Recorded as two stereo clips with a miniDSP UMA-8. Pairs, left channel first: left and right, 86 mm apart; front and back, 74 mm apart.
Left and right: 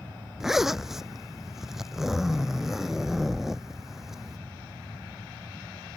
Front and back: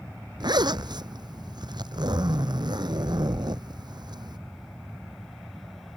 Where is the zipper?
175° right.